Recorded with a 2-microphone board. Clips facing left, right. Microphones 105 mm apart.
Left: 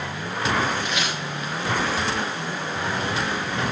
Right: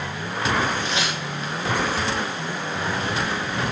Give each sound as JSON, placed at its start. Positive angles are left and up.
{"t": 0.8, "sound": "tearing paper", "side_deg": -30, "distance_m": 6.0}